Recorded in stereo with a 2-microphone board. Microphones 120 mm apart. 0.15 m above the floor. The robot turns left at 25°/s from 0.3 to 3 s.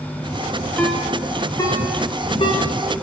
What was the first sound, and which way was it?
A ringtone, 5° left (ahead or behind).